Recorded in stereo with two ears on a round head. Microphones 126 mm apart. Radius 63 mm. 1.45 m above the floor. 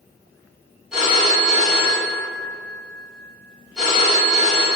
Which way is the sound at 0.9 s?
5° right (ahead or behind).